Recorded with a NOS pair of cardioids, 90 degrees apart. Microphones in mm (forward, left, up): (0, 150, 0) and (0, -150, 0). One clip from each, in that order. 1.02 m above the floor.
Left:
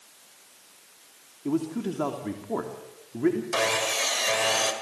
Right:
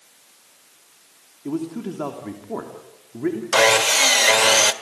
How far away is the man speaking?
About 3 m.